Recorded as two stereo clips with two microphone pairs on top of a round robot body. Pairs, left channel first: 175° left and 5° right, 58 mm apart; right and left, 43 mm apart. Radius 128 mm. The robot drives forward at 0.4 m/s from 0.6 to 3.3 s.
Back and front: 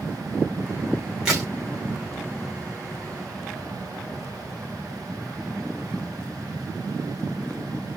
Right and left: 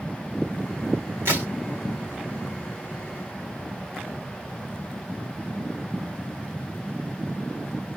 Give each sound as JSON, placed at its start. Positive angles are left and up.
{"t": 1.2, "sound": "a crack", "azimuth_deg": 90, "distance_m": 1.1}